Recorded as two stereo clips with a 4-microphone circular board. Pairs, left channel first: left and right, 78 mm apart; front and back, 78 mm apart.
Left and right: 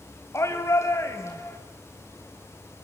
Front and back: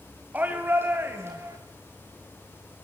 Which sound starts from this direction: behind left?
A shout, at 0.3 s.